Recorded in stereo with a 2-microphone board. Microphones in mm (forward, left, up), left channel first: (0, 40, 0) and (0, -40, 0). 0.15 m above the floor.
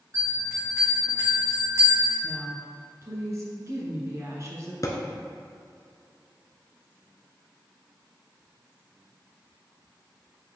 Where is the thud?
50° left (ahead or behind), 0.9 m.